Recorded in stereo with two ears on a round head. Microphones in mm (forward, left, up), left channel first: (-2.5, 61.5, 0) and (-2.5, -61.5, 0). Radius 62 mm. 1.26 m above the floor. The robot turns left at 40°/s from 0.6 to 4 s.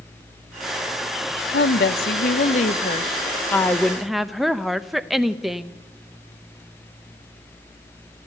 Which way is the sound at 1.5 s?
100° left.